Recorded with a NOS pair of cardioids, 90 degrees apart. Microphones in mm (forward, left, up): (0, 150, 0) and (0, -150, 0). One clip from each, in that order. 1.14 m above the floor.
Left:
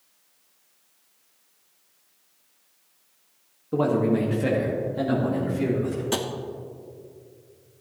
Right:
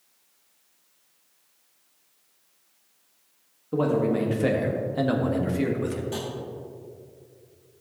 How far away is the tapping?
About 1.0 m.